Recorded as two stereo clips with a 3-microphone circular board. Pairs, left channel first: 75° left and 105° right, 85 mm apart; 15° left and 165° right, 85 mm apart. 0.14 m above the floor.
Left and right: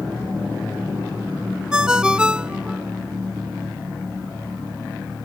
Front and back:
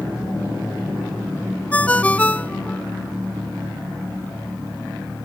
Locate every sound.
1.7 s a ringtone: 40° right